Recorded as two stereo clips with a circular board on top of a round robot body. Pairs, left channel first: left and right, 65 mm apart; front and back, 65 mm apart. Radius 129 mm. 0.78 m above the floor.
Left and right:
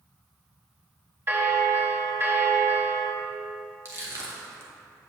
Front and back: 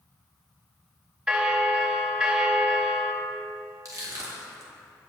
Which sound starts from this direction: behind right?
Crushing, at 3.9 s.